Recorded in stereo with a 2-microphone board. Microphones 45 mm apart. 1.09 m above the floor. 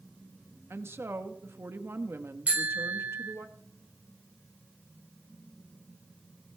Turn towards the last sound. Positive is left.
turn(degrees=-30)  # may be behind; listen again after turning